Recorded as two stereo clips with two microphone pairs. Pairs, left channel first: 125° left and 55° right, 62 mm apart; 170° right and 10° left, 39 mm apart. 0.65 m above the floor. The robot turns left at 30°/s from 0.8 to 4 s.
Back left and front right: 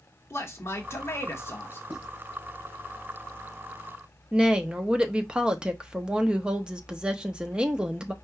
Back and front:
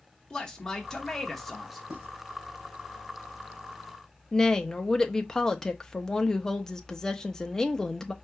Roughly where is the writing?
Ahead.